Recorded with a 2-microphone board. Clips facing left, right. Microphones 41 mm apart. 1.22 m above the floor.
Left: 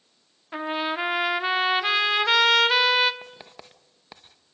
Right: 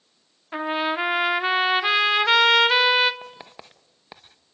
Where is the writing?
10° right (ahead or behind), 0.6 m.